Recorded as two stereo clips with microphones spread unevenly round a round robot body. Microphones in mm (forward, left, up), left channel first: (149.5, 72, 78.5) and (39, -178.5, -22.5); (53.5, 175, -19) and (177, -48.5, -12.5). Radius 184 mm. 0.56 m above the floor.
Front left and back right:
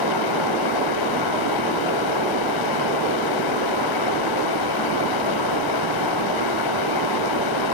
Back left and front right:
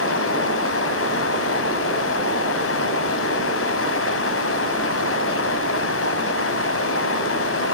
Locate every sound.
0.0 s running water: 85° left, 2 m